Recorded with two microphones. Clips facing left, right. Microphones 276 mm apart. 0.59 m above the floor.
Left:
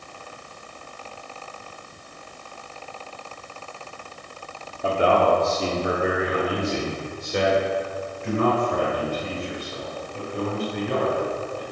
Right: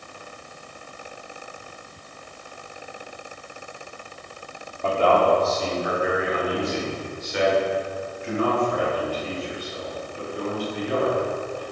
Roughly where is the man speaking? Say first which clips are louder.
Even; centre.